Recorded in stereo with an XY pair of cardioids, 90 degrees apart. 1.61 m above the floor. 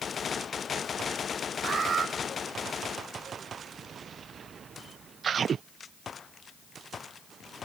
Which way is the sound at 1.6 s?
50° right.